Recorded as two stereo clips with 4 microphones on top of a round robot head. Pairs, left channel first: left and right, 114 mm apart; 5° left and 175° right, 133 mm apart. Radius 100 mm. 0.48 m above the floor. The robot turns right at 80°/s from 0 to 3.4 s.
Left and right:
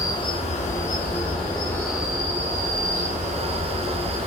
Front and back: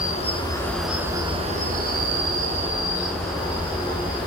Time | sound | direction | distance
0.0 | an insect | 30° left | 2.5 m